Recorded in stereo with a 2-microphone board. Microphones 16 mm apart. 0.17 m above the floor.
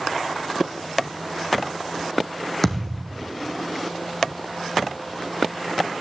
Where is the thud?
15° left (ahead or behind), 2.5 m.